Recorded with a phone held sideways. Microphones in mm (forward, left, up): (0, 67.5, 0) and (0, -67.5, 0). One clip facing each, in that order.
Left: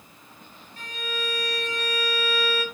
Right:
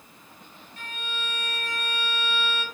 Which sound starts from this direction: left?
A violin, at 0.8 s.